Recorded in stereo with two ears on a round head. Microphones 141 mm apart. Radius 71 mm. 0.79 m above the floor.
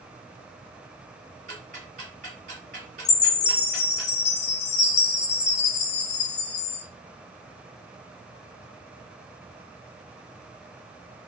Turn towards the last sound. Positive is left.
turn(degrees=45)  # may be behind; listen again after turning